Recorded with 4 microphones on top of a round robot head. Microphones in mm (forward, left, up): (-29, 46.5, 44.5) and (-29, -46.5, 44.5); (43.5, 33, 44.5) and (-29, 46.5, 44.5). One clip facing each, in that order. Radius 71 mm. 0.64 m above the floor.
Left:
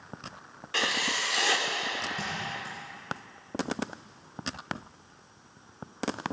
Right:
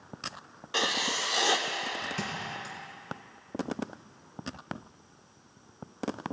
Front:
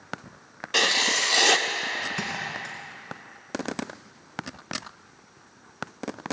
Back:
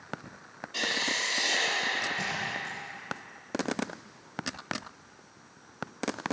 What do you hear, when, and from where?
0.7 s writing: 20° right, 0.8 m
2.2 s a thud: 50° right, 1.9 m